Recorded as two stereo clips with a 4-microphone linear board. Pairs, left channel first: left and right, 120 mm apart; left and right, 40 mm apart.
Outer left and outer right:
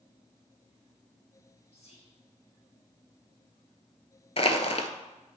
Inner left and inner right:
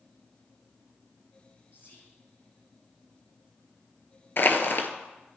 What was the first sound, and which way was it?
Whispering, 50° left (ahead or behind).